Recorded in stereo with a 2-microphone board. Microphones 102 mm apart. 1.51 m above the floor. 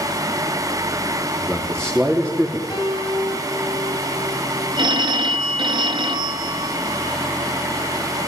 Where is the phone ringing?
50° right (ahead or behind), 1.6 m.